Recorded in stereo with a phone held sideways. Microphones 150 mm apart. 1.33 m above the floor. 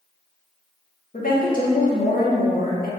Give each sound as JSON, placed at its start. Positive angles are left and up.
{"t": 1.1, "sound": "a woman speaking", "side_deg": 65, "distance_m": 1.1}